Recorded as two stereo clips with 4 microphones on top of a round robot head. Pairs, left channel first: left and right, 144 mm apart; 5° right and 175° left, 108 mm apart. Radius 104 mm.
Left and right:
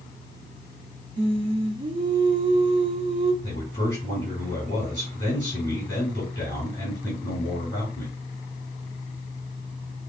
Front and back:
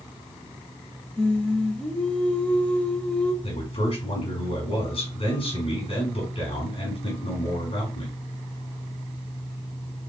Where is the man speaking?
15° left, 3.5 m.